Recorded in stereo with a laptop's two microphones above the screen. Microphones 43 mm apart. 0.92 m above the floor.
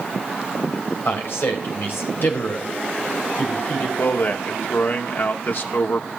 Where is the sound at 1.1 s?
55° left (ahead or behind), 4 m.